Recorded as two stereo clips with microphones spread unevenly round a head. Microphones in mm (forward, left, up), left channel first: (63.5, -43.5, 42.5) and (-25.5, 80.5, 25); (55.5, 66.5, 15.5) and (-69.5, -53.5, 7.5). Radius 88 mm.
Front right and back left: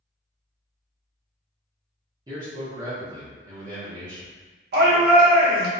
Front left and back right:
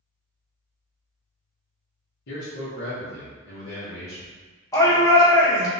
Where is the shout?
115° left, 0.9 m.